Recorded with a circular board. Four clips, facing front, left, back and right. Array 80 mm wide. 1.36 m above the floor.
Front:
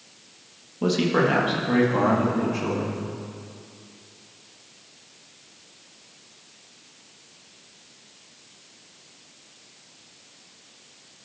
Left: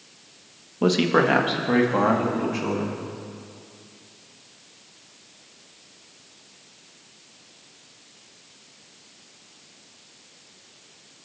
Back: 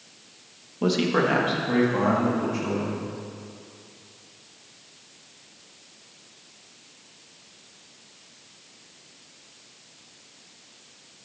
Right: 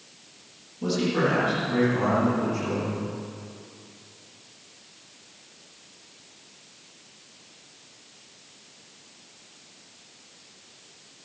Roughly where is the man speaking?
Left.